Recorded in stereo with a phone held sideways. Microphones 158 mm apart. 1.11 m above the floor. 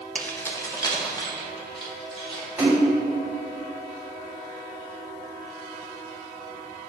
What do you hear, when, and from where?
0.1 s keys jangling: 5° left (ahead or behind), 0.5 m; by 2.5 s 30° left (ahead or behind), 2.0 m
2.6 s a splash: 10° right (ahead or behind), 2 m